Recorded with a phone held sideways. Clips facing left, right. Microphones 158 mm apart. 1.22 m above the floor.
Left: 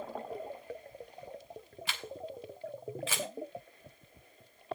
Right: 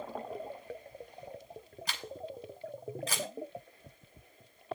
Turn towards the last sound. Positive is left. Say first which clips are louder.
# even
turn(degrees=-40)  # may be behind; listen again after turning